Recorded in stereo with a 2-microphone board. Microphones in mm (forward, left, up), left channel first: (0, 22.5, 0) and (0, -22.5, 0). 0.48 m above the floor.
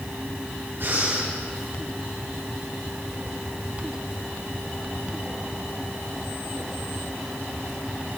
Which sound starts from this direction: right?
Breathing, at 0.8 s.